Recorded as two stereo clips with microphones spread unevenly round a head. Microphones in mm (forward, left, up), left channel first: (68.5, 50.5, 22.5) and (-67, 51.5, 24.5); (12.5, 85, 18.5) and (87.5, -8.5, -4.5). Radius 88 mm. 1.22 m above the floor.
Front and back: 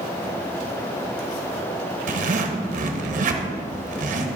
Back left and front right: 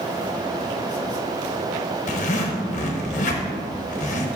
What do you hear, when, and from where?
2.1 s a zipper: 155° left, 0.9 m